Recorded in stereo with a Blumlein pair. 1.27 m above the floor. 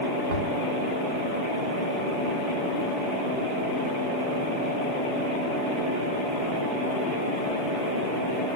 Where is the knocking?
55° right, 1.3 m.